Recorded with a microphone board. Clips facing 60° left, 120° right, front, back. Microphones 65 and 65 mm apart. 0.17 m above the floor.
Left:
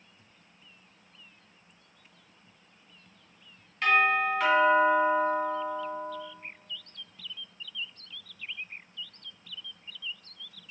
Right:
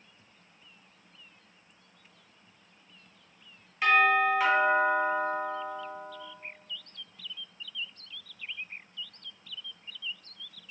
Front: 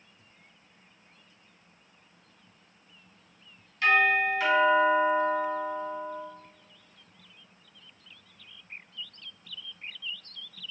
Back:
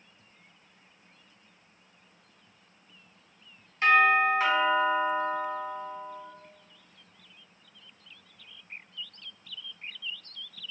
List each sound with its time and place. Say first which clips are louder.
3.8 s a doorbell: right 1 dB, back 2 dB; 165° left, 1.5 m